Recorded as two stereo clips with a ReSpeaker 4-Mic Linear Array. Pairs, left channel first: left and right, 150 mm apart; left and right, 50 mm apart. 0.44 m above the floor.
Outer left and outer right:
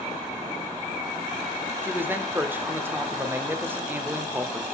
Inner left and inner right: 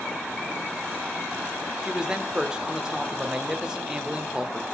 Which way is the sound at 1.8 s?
15° right (ahead or behind).